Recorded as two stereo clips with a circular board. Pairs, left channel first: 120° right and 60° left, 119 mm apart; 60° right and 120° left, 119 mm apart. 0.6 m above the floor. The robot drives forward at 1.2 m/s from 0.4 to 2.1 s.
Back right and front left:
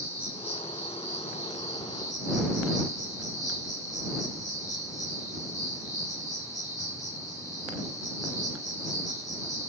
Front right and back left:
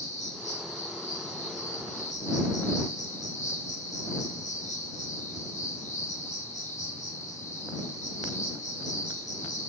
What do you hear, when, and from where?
0.0 s an insect: 45° right, 10 m; by 9.7 s 55° right, 8.5 m